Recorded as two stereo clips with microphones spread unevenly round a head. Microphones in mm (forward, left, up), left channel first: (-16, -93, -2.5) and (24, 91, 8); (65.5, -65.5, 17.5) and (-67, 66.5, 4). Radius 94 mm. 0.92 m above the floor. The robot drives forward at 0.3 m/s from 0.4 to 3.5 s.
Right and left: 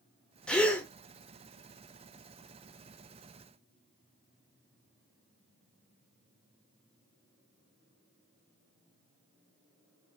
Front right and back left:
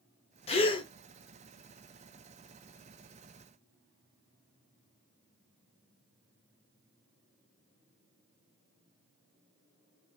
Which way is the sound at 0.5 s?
15° right.